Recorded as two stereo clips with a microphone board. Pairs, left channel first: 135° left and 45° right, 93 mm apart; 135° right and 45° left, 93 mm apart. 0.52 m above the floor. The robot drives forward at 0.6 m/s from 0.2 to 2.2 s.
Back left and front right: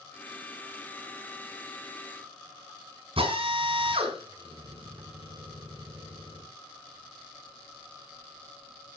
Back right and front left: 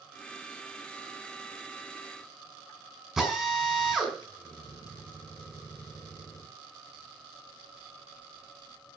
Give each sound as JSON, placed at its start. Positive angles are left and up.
{"t": 3.2, "sound": "a drill", "azimuth_deg": -40, "distance_m": 4.5}